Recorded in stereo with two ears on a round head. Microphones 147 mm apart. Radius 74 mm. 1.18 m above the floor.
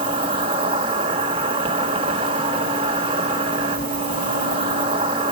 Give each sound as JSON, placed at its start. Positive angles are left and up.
{"t": 0.0, "sound": "an insect", "side_deg": -30, "distance_m": 1.2}